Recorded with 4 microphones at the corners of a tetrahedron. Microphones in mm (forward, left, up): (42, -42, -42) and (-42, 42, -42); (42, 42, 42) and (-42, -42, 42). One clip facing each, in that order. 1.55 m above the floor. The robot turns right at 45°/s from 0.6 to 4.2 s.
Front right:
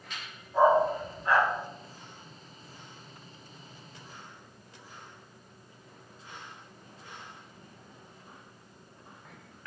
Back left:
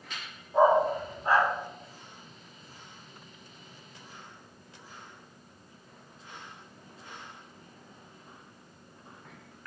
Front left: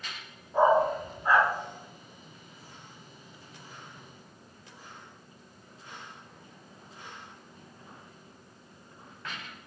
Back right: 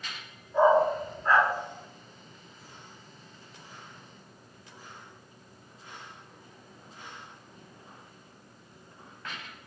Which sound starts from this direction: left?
A dog barking, at 0.5 s.